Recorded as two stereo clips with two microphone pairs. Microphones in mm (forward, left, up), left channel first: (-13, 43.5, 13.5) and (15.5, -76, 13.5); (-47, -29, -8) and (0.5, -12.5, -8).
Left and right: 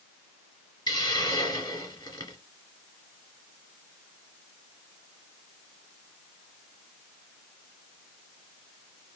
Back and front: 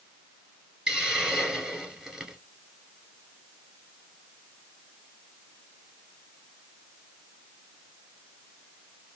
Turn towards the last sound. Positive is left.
turn(degrees=85)